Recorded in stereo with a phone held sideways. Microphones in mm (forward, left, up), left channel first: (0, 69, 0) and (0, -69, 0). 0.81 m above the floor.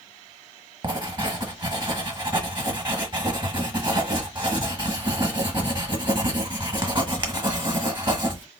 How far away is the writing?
About 1.0 m.